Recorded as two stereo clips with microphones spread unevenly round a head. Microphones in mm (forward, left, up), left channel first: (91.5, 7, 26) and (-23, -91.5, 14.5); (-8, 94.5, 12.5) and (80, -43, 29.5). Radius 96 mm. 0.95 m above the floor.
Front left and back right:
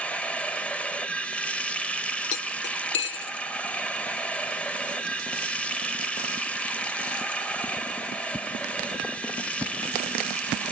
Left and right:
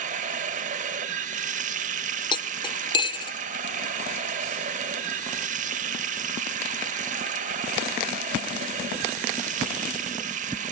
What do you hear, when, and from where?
0.0 s running water: 35° right, 1.0 m
2.3 s cutlery clinking: 60° left, 0.7 m